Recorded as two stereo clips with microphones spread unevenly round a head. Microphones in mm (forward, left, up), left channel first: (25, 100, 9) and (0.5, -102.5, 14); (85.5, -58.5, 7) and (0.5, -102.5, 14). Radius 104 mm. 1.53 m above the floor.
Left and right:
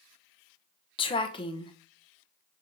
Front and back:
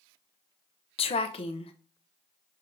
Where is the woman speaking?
20° left, 0.6 m.